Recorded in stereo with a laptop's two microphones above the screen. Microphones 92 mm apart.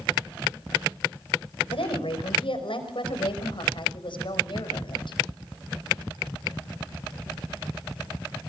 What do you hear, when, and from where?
1.7 s a woman speaking: 70° left (ahead or behind), 5 m; by 5.2 s 55° left (ahead or behind), 6 m